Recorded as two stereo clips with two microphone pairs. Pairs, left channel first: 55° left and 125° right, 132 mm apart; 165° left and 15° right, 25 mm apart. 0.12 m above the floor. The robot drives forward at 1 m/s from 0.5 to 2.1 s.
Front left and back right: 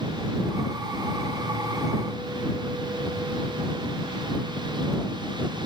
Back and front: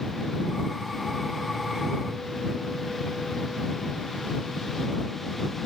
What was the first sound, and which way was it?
Only background noise.